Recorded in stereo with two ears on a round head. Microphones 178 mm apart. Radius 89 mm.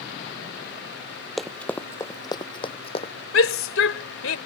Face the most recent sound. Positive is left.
turn(degrees=75)  # may be behind; listen again after turning